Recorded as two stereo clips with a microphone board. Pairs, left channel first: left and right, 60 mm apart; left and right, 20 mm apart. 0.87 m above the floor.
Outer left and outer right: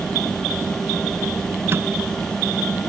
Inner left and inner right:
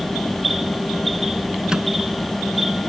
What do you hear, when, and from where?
1.7 s a microwave: 45° right (ahead or behind)